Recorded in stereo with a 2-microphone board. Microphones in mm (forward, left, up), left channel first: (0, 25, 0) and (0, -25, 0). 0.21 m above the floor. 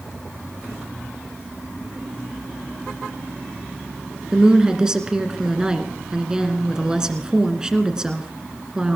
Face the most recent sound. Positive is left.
turn(degrees=-15)  # may be behind; listen again after turning